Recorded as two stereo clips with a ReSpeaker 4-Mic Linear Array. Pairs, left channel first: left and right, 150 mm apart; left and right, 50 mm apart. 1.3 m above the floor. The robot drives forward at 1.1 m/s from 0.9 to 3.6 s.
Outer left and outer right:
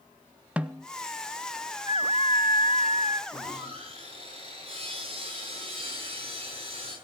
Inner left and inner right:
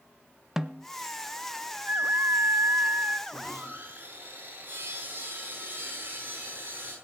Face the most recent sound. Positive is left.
turn(degrees=-45)  # may be behind; listen again after turning